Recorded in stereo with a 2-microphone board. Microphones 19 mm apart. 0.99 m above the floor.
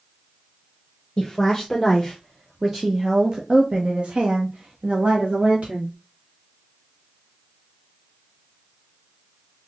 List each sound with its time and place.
1.2 s a woman speaking: 20° left (ahead or behind), 1.3 m; by 6.0 s 75° right (ahead or behind), 2 m